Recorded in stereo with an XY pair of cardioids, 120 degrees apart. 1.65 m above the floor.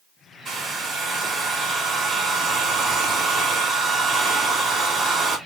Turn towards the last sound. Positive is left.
turn(degrees=-50)